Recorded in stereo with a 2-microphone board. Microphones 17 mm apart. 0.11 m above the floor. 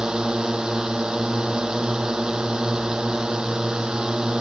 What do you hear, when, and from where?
0.0 s a drone: 65° right (ahead or behind)